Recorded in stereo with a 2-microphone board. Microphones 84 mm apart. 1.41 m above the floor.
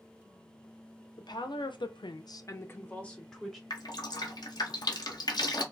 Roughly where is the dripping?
Left.